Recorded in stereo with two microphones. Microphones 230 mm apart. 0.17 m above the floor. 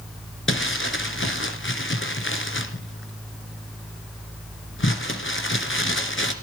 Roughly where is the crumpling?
Left.